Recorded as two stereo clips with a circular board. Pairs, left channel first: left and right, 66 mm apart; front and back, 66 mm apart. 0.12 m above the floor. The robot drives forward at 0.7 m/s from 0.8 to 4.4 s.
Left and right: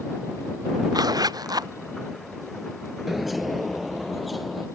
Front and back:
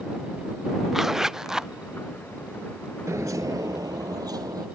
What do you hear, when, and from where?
0.9 s a zipper: 95° right; by 1.7 s 100° right
3.1 s a bird: 175° right; by 4.7 s straight behind